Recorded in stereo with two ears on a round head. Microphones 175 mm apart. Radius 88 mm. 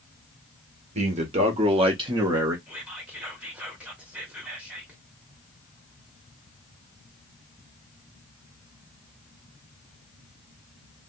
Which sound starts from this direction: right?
A man speaking, at 0.9 s.